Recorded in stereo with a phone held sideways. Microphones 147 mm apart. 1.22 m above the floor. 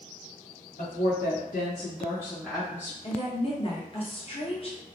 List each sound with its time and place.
0.8 s a woman speaking: 80° left, 1.2 m; by 2.9 s 20° right (ahead or behind), 0.9 m
3.0 s a woman speaking: 40° left (ahead or behind), 0.9 m